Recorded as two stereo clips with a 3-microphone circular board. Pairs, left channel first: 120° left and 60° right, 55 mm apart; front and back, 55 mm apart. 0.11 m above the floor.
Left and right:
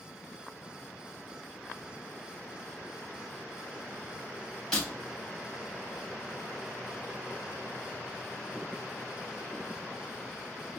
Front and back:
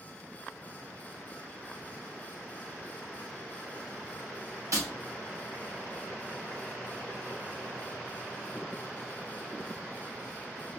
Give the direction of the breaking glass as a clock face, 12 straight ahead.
5 o'clock.